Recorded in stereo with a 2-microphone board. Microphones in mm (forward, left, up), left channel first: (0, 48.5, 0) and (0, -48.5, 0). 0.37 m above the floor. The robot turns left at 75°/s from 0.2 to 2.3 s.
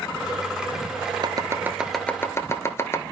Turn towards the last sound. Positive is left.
turn(degrees=30)  # may be behind; listen again after turning